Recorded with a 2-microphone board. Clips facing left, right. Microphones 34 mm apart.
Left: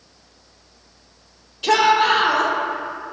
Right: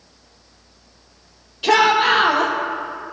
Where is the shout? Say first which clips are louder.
Right 1 dB; 10° right (ahead or behind), 4.5 m.